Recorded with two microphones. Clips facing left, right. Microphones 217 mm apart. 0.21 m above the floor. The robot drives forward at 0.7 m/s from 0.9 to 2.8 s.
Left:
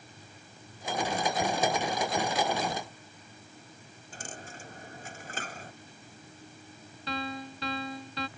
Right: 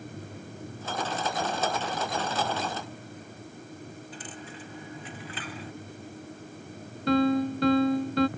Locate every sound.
4.1 s a dropped coin: 45° left (ahead or behind)
7.1 s a piano: 50° right (ahead or behind)